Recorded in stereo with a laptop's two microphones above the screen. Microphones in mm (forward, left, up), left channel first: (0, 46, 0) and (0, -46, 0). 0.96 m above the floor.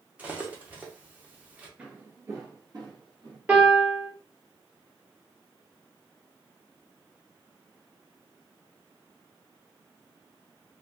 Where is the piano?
15° right (ahead or behind), 1.1 m.